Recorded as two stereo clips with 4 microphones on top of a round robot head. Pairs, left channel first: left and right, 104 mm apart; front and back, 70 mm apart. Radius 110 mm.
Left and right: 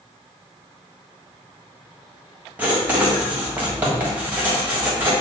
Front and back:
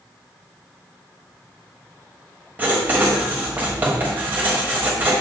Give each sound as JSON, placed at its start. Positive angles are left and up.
{"t": 2.6, "sound": "writing", "azimuth_deg": -145, "distance_m": 1.4}